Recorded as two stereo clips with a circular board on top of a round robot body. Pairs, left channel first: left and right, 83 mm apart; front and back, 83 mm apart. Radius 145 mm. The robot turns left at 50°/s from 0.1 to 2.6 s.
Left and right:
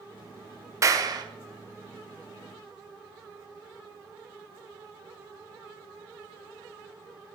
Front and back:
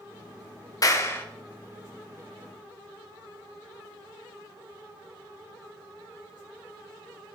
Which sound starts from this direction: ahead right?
A clap, at 0.8 s.